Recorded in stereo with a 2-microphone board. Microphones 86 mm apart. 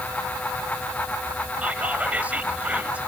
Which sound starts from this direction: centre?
Whispering, at 1.6 s.